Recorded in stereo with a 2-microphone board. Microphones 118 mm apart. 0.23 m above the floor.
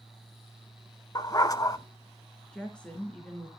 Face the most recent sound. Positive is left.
turn(degrees=10)  # may be behind; listen again after turning